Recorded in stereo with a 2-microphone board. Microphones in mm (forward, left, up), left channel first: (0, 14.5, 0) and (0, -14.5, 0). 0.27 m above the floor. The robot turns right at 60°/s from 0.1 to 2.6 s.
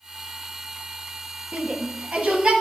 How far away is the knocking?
No knocking in this recording.